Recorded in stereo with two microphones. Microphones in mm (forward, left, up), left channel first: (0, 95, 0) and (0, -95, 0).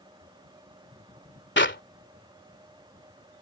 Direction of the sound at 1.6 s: 85° left.